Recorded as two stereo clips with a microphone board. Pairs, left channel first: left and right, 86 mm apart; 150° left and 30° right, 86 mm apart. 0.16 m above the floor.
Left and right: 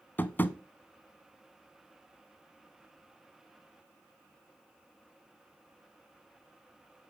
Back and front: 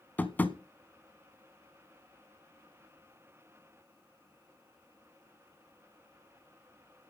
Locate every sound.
0.2 s tapping: 115° left, 0.9 m